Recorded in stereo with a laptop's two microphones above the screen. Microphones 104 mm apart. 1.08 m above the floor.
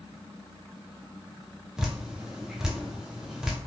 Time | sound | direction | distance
1.8 | dripping | 5° right (ahead or behind) | 0.6 m